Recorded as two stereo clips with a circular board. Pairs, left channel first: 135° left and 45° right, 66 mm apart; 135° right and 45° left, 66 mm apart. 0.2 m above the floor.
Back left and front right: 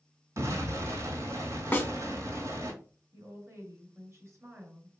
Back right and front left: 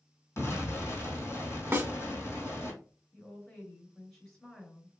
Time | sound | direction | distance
0.4 | an explosion | 85° right | 1.8 m
1.7 | a snare drum | 85° left | 0.5 m
3.1 | a woman speaking | 50° right | 2.5 m